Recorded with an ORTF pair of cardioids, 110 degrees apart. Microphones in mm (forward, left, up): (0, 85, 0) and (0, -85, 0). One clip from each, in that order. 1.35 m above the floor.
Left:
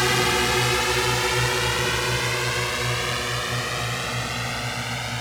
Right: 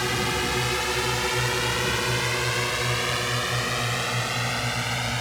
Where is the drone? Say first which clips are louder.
Left 5 dB; 35° left; by 5.2 s 10° right.